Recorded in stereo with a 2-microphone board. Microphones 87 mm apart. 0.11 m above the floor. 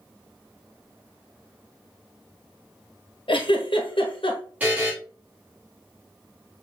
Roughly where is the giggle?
Left.